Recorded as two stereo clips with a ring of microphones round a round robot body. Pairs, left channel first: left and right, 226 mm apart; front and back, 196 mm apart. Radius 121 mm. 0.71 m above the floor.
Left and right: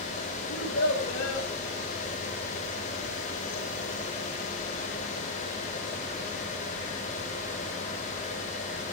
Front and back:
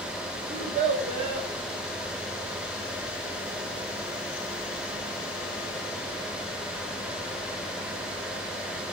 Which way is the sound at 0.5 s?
135° left.